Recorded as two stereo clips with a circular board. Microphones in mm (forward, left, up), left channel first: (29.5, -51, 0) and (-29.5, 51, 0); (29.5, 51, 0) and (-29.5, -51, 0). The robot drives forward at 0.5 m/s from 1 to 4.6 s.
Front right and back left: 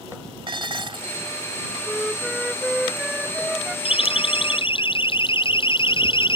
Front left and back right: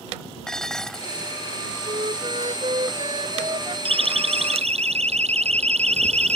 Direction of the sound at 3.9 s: 90° right.